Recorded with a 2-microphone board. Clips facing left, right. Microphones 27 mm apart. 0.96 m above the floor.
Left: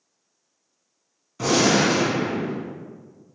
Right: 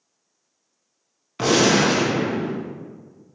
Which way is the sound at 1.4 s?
50° right (ahead or behind).